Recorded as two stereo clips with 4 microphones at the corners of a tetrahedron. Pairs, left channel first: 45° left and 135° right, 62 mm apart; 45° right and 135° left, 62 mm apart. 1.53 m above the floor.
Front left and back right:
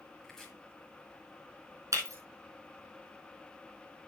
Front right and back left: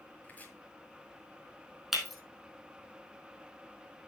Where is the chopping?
25° right, 1.5 m.